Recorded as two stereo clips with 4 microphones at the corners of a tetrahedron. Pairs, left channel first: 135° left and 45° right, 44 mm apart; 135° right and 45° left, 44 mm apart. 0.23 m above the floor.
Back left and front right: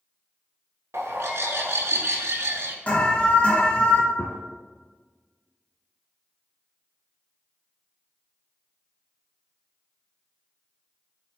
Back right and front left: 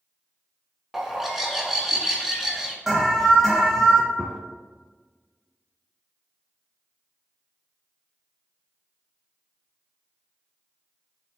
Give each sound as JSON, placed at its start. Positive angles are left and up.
{"t": 0.9, "sound": "a bird", "azimuth_deg": -40, "distance_m": 0.6}
{"t": 2.9, "sound": "an alarm", "azimuth_deg": 120, "distance_m": 1.0}
{"t": 4.2, "sound": "a gunshot", "azimuth_deg": 130, "distance_m": 0.5}